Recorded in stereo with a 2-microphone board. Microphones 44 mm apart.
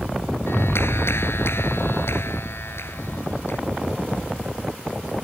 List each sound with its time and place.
0.5 s a clap: 75° left (ahead or behind)